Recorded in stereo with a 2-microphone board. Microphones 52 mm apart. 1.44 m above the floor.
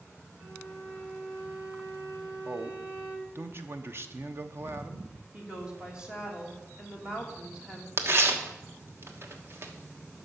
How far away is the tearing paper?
About 1.2 m.